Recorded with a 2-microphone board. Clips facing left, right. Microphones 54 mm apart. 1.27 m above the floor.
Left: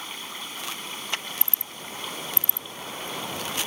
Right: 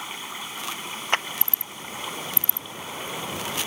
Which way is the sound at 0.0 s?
15° right (ahead or behind).